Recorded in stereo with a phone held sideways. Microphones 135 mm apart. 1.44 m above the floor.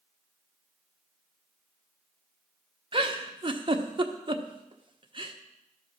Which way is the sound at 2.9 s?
40° right (ahead or behind).